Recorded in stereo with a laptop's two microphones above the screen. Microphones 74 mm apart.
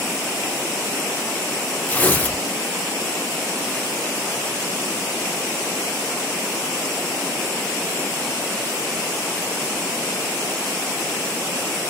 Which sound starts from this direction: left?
Tearing paper, at 1.9 s.